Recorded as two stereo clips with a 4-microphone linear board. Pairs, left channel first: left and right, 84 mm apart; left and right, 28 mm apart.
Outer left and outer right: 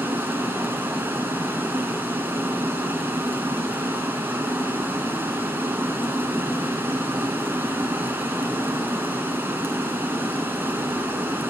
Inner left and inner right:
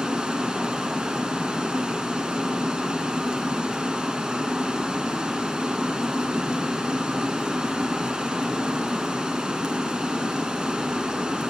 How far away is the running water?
About 1.5 m.